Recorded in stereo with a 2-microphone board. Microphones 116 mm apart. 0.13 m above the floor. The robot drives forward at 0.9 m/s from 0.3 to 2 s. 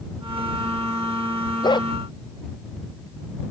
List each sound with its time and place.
1.6 s a dog barking: 40° left (ahead or behind)